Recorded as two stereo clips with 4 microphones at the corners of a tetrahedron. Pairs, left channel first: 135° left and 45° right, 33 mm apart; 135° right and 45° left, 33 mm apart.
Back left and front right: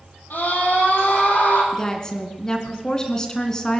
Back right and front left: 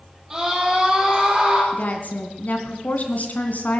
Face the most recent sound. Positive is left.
turn(degrees=-155)